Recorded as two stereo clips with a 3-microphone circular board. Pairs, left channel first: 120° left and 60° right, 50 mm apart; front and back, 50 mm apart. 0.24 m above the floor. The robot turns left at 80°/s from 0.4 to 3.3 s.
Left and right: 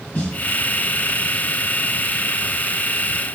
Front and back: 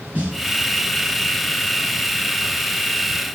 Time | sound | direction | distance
0.1 | a snare drum | 135° left | 2 m